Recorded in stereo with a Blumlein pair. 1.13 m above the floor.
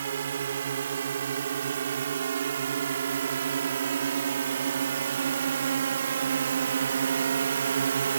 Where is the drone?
65° right; by 8.2 s 70° right.